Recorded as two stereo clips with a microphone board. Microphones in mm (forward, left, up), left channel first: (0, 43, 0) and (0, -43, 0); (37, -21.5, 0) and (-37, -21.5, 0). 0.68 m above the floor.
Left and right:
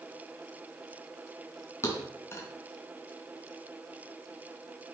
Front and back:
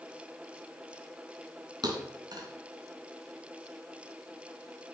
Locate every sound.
1.8 s a thud: 150° left, 2.5 m